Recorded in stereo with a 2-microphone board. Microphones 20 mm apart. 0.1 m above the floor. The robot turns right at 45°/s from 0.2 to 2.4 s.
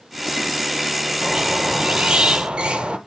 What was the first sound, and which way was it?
A squeak, 145° right.